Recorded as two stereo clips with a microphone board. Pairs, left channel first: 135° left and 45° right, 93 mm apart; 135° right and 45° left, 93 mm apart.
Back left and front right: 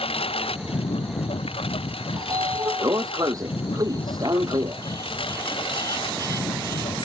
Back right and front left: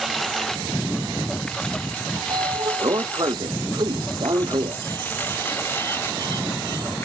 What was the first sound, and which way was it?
A lawn mower, 135° left.